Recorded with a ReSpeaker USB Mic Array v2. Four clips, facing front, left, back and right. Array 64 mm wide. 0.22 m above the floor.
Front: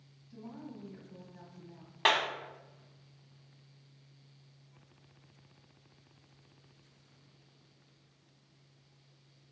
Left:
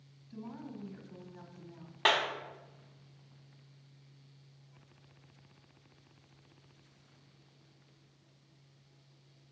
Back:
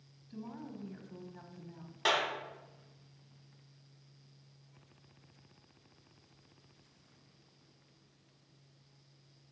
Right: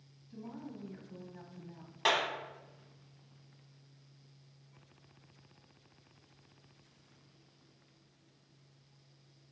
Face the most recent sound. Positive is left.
turn(degrees=30)